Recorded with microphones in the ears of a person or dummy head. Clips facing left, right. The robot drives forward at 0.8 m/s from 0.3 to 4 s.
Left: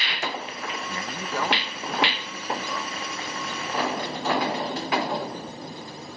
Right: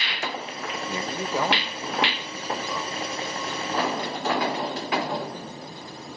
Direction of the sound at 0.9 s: 20° right (ahead or behind).